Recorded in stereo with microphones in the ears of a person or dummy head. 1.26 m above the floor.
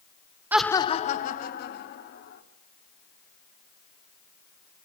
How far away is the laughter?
About 0.6 m.